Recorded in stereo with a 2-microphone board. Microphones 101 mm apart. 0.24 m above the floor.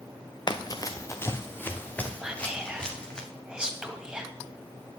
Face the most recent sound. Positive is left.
turn(degrees=-5)  # may be behind; listen again after turning